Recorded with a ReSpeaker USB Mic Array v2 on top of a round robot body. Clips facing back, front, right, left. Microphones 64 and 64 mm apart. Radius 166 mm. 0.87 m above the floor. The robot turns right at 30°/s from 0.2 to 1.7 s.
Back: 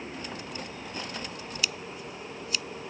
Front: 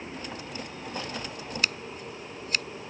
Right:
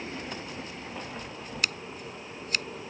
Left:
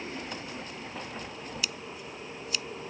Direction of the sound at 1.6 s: 50° right.